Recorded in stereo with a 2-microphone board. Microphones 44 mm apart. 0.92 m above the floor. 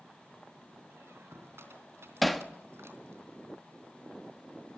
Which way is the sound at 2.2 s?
Centre (ahead or behind).